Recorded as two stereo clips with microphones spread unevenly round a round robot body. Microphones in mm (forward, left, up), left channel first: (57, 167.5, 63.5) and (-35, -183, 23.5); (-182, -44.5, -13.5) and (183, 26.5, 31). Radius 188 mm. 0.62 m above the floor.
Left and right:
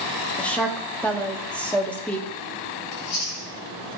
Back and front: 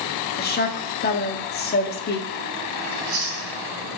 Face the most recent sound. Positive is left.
turn(degrees=65)